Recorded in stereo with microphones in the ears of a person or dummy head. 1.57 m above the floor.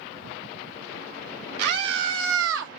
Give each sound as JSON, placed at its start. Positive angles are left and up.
{"t": 1.6, "sound": "a scream", "side_deg": -60, "distance_m": 2.0}